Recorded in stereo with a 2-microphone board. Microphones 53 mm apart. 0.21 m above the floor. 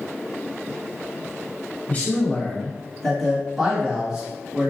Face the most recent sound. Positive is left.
turn(degrees=-25)  # may be behind; listen again after turning